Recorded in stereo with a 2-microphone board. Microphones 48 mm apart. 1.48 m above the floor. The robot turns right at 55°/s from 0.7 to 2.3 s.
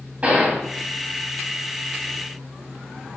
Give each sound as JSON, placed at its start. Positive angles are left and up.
{"t": 0.2, "sound": "a gunshot", "side_deg": -25, "distance_m": 3.0}